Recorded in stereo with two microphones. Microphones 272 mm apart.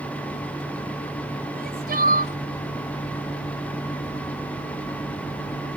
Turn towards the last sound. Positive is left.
turn(degrees=-35)  # may be behind; listen again after turning